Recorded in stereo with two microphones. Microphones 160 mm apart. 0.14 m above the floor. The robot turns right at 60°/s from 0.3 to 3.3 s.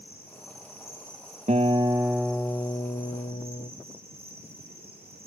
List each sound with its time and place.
0.0 s an insect: 70° left, 5.5 m; by 5.3 s 110° right, 5.5 m
1.5 s a guitar: 45° right, 1.3 m; by 3.7 s 60° left, 1.3 m